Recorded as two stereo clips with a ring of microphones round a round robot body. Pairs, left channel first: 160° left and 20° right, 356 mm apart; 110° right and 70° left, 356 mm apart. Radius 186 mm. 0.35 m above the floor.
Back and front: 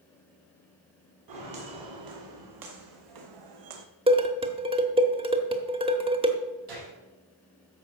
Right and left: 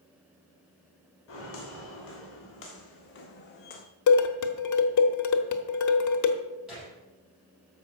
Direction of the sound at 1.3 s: 60° right.